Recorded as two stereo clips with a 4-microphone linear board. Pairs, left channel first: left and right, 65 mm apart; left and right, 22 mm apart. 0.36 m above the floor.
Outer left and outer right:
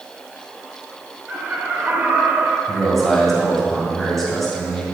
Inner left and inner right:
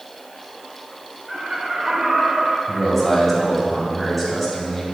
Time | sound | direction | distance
1.3 | laughter | 20° right (ahead or behind) | 1.1 m
2.7 | a man speaking | 5° left (ahead or behind) | 2 m